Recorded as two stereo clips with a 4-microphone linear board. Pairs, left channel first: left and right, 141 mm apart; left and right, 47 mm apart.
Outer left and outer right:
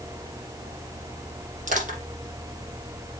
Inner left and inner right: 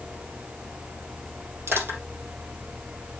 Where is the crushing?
65° right (ahead or behind), 4.5 m.